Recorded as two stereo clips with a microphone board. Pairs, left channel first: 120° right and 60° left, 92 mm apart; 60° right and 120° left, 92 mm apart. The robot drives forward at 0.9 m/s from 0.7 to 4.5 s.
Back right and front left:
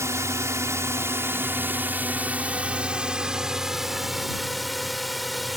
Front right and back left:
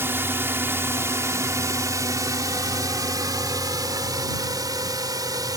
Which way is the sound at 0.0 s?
80° left.